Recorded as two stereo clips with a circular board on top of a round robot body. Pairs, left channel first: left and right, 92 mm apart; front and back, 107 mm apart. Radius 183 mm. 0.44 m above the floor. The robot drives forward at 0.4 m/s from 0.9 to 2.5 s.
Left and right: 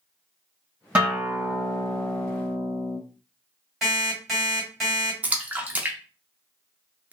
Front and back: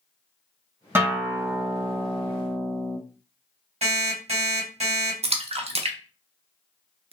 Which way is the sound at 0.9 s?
150° right.